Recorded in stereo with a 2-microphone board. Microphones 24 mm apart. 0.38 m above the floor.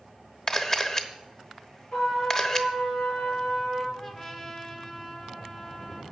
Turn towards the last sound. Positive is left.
turn(degrees=20)  # may be behind; listen again after turning